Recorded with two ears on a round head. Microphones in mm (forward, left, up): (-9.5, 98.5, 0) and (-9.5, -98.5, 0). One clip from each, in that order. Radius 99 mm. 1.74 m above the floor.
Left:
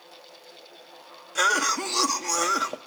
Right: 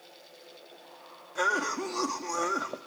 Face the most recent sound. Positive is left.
turn(degrees=80)